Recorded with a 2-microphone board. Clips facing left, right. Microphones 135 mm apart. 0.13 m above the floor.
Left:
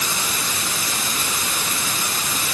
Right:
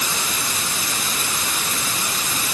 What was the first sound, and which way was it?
Only background noise.